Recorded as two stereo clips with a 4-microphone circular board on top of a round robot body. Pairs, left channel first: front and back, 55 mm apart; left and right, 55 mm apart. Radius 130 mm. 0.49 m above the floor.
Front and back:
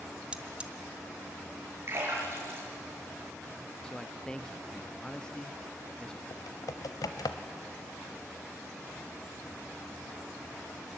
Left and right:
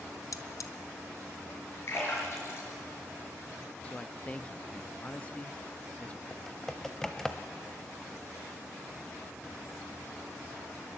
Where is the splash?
135° left, 5 m.